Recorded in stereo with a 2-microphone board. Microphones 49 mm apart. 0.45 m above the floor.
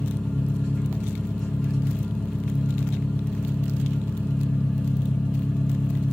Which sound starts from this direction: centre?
An engine running, at 0.0 s.